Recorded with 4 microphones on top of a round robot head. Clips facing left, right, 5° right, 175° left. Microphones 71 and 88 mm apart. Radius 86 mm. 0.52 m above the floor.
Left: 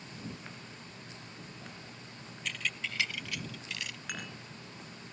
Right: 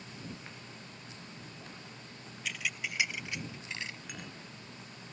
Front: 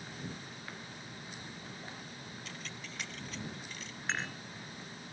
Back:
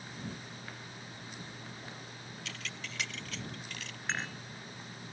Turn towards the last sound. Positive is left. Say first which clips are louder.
# left 4 dB, even
turn(degrees=85)